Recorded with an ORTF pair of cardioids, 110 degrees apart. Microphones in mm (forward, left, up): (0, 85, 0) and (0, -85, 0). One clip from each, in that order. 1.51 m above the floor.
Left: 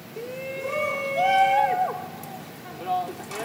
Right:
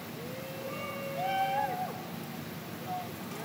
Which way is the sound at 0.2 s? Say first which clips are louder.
Left 11 dB; 70° left.